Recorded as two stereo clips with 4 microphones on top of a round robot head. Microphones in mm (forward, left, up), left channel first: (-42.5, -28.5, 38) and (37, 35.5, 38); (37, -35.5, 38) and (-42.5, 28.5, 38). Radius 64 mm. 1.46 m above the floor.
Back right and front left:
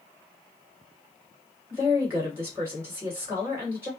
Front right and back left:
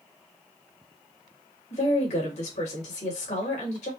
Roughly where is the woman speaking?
Ahead right.